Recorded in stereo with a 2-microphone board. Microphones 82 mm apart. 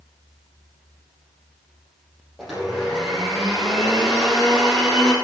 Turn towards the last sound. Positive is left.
turn(degrees=0)  # may be behind; listen again after turning